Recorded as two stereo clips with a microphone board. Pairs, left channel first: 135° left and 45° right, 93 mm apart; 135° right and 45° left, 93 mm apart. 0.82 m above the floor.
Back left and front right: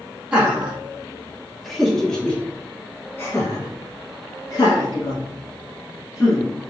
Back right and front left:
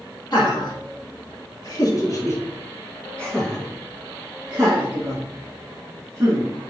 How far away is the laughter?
About 1.8 m.